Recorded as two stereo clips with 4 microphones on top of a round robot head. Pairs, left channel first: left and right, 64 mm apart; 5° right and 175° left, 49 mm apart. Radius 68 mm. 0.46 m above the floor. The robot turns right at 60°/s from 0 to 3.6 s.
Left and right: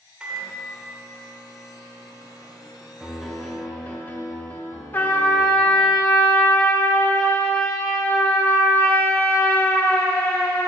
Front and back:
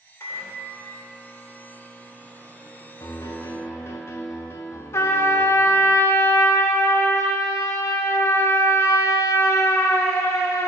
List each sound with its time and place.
0.2 s a microwave: 15° right, 1.8 m; by 4.0 s 170° right, 1.8 m
3.0 s a piano: 15° right, 0.6 m; by 5.9 s 20° left, 0.6 m
4.9 s a trumpet: 20° left, 0.6 m